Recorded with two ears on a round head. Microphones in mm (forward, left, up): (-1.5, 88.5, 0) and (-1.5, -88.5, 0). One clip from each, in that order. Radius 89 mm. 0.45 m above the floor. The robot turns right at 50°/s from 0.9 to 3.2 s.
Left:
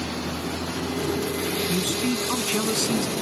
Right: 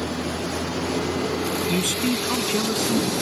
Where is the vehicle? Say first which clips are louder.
Right 2 dB; straight behind; by 3.2 s 65° right.